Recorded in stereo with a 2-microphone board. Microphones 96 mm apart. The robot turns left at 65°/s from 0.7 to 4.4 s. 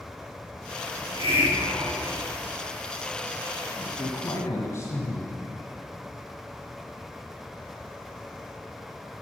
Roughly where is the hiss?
Right.